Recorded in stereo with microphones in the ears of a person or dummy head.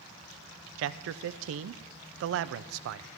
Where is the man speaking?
75° right (ahead or behind), 0.5 m.